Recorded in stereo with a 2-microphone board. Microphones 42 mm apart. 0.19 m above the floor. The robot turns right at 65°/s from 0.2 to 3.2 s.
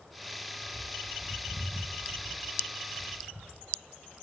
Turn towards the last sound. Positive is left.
turn(degrees=-65)